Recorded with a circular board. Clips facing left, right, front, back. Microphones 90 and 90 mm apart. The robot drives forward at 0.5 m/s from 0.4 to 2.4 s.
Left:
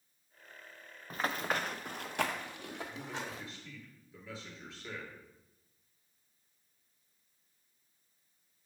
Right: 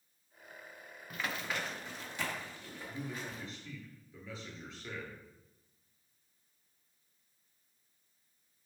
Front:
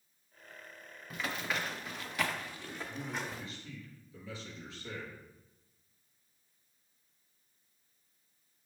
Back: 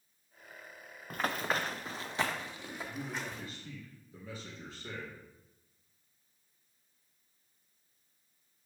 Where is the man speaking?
175° left, 2.5 m.